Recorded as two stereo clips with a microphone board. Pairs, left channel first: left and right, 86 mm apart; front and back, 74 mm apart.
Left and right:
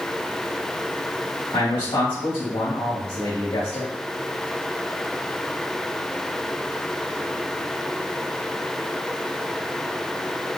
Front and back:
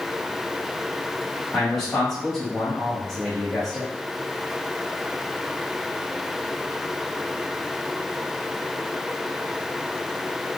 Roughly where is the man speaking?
Left.